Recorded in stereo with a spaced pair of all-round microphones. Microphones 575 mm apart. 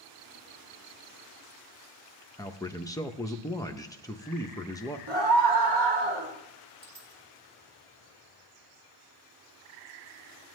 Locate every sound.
2.4 s a man speaking: 5° left (ahead or behind), 0.5 m
5.1 s a scream: 45° right (ahead or behind), 2.5 m
6.8 s a dropped coin: 70° right (ahead or behind), 1.7 m